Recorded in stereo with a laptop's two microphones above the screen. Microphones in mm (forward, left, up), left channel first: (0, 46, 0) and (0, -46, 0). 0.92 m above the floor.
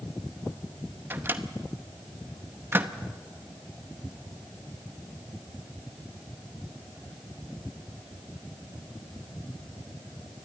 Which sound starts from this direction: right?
A microwave, at 1.1 s.